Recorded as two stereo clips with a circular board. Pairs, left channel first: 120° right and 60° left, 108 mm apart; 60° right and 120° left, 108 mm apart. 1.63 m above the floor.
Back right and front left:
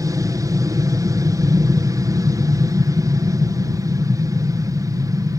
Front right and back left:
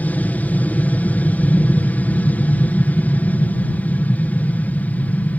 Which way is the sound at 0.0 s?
10° left.